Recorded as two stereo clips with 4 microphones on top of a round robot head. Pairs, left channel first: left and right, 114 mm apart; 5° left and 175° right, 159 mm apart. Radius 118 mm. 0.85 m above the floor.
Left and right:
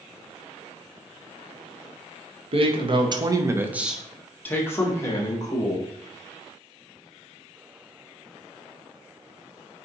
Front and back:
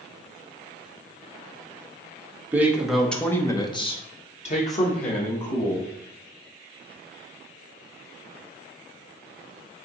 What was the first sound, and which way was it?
A man speaking, 100° right.